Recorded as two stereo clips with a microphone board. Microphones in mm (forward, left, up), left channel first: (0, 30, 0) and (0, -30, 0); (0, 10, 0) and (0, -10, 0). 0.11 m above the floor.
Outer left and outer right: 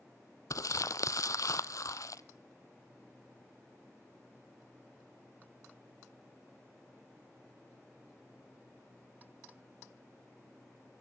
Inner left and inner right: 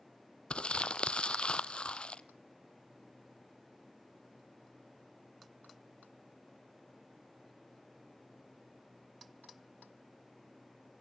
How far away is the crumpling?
About 0.6 m.